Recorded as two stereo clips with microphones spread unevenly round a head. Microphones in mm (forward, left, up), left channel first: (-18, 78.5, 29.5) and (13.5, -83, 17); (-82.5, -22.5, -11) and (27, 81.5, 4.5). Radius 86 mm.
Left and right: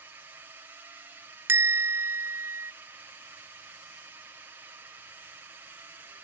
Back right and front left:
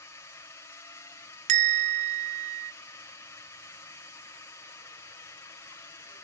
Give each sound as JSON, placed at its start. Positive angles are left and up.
{"t": 0.0, "sound": "a drone", "azimuth_deg": -120}
{"t": 1.5, "sound": "a bell", "azimuth_deg": -5}